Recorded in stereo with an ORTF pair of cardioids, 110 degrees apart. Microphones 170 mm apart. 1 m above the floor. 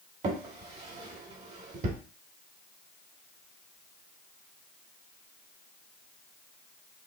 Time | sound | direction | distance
0.2 | a drawer | 45° right | 1.5 m